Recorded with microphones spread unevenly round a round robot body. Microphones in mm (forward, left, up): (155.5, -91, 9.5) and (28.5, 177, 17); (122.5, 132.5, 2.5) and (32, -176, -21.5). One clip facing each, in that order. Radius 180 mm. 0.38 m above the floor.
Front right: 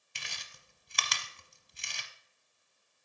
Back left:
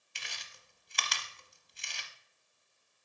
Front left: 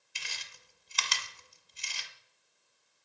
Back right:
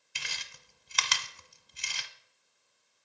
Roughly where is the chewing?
Right.